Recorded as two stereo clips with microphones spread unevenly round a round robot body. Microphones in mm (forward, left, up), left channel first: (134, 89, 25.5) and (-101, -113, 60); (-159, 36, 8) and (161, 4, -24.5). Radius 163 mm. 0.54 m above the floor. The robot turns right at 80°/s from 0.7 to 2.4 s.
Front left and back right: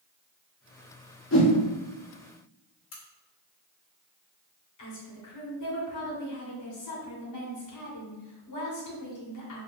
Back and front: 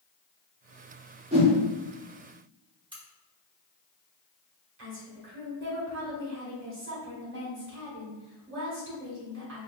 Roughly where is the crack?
Ahead left.